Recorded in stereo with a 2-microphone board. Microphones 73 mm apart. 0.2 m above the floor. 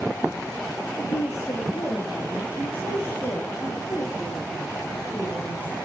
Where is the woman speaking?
40° left (ahead or behind), 8.5 m; by 5.8 s 15° left (ahead or behind), 5.5 m.